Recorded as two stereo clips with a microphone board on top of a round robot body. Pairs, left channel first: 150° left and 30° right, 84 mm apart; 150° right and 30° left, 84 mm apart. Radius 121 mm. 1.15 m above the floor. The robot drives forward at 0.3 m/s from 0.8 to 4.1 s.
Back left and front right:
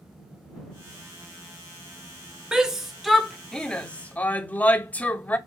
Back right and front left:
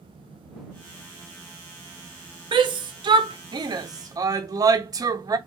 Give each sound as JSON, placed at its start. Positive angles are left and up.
{"t": 2.5, "sound": "a shout", "azimuth_deg": 50, "distance_m": 1.1}